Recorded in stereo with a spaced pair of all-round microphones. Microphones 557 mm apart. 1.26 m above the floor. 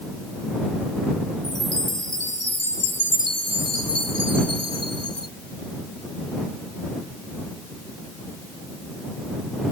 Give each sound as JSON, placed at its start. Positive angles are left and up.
{"t": 1.4, "sound": "a chime", "side_deg": 85}